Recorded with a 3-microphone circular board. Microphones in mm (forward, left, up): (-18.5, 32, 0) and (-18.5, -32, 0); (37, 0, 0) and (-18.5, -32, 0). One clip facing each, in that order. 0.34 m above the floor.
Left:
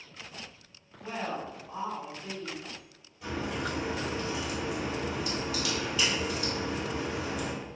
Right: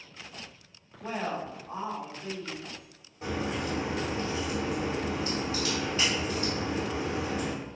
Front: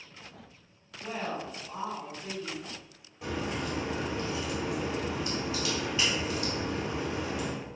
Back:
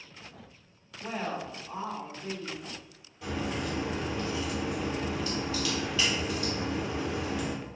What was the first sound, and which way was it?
A woman speaking, 110° right.